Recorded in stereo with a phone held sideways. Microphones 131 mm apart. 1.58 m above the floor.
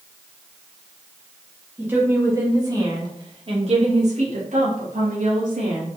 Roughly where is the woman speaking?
Centre.